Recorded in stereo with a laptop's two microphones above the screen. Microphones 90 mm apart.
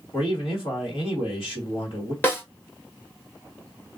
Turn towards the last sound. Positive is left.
turn(degrees=25)  # may be behind; listen again after turning